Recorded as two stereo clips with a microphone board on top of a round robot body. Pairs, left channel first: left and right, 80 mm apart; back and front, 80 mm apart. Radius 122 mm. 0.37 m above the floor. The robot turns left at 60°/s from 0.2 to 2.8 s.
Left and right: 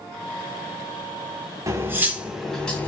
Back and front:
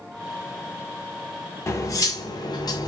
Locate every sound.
1.7 s cutlery clinking: 130° right, 0.7 m; by 2.9 s 160° left, 0.7 m